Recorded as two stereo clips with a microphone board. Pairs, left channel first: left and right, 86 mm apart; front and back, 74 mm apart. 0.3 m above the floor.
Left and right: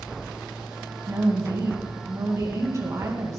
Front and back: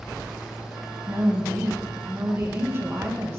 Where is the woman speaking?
135° right, 2.5 m.